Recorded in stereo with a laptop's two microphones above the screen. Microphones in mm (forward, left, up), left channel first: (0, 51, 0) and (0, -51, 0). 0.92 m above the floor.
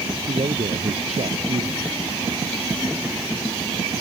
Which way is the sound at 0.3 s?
85° right.